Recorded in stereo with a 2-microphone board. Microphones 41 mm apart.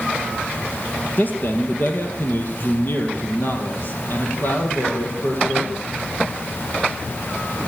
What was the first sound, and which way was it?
A man speaking, 40° left (ahead or behind).